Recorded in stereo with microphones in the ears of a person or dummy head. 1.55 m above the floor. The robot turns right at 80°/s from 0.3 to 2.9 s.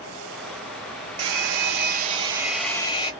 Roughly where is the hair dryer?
Right.